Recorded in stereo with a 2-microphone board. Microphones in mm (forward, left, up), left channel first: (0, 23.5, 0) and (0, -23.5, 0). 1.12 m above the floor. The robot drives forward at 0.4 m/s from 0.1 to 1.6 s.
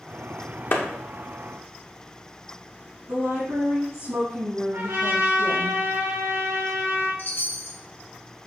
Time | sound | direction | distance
0.7 | a clap | 40° left (ahead or behind) | 0.7 m
3.1 | a woman speaking | 75° right (ahead or behind) | 1.9 m
4.7 | a trumpet | 80° right | 1.8 m
7.2 | a chime | 45° left (ahead or behind) | 0.7 m